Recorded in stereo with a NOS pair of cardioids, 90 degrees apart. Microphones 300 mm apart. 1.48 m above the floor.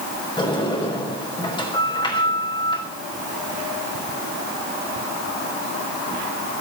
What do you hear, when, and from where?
0.4 s a sliding door: 15° left, 6 m